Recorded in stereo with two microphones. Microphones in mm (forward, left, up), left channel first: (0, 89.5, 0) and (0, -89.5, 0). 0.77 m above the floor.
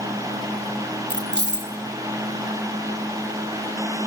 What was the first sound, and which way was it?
Keys jangling, 75° right (ahead or behind).